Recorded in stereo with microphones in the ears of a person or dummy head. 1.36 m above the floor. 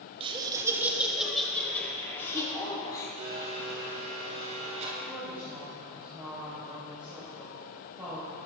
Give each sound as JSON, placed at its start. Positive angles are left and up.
{"t": 0.2, "sound": "laughter", "side_deg": -35, "distance_m": 2.5}
{"t": 3.2, "sound": "a blender", "side_deg": -40, "distance_m": 5.0}
{"t": 5.0, "sound": "a woman speaking", "side_deg": -15, "distance_m": 4.5}